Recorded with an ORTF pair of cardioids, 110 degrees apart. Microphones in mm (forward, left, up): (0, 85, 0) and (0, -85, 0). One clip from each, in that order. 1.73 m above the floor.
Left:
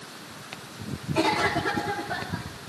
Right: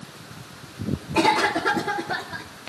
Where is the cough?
40° right, 3.5 m.